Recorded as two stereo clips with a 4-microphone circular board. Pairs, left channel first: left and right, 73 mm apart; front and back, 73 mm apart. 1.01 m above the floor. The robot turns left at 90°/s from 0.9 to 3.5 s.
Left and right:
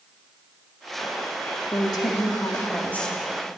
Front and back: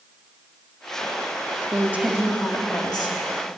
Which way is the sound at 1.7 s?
135° left.